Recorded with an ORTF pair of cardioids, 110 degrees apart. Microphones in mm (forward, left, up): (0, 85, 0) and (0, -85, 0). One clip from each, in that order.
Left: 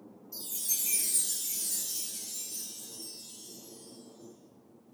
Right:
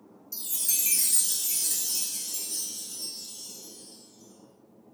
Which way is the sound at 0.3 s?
55° right.